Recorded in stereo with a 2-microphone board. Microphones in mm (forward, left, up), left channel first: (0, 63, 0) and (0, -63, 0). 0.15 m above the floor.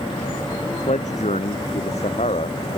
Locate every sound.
0.8 s a man speaking: 70° left (ahead or behind); by 2.8 s 55° left (ahead or behind)